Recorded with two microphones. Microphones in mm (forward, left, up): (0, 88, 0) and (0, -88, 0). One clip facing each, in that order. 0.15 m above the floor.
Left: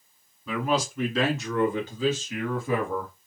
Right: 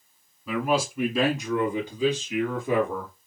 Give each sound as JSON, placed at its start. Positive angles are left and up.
{"t": 0.5, "sound": "a man speaking", "side_deg": -5, "distance_m": 1.4}